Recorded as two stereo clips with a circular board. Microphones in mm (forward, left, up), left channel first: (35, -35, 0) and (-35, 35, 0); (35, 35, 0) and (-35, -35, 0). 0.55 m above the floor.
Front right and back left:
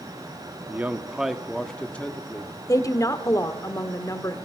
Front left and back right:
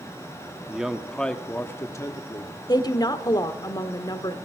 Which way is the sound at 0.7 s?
165° left.